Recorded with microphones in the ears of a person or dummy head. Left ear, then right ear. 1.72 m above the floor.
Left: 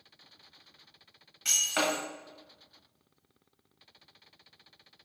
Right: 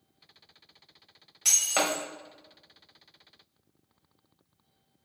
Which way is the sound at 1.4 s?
15° right (ahead or behind).